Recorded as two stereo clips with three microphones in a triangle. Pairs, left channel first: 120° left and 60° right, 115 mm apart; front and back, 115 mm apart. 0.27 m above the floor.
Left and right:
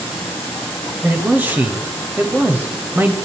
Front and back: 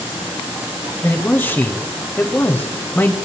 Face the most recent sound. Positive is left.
turn(degrees=-25)